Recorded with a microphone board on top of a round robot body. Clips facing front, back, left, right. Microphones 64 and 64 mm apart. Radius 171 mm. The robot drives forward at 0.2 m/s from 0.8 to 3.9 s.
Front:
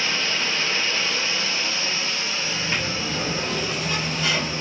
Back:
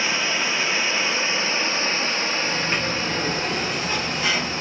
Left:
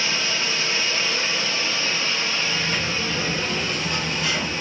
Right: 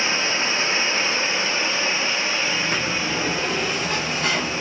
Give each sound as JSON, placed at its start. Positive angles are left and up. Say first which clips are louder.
{"t": 0.0, "sound": "running water", "louder": "back 2 dB, right 3 dB", "azimuth_deg": -120, "distance_m": 0.7}
{"t": 2.4, "sound": "a sliding door", "louder": "back 3 dB, right 2 dB", "azimuth_deg": -105, "distance_m": 1.2}